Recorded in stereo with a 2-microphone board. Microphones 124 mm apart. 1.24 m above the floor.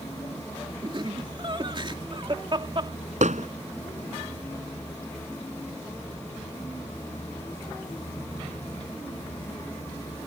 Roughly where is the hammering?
Right.